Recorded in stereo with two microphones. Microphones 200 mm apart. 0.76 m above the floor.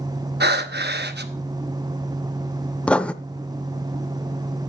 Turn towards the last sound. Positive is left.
turn(degrees=5)  # may be behind; listen again after turning